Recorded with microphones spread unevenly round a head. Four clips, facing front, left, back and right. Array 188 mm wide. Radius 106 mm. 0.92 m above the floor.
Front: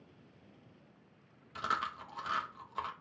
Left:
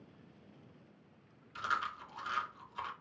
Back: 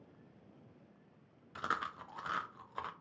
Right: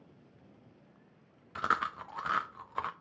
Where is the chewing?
70° right, 0.8 m.